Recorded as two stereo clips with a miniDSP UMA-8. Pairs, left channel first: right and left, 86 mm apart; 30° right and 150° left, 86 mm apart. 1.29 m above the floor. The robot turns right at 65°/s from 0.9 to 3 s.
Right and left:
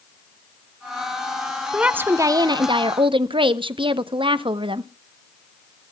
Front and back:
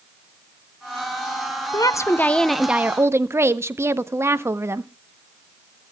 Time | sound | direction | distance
1.7 | a woman speaking | 10° left | 0.7 m